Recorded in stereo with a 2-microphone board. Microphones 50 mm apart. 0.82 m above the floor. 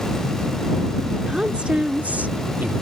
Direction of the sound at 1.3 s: 20° right (ahead or behind).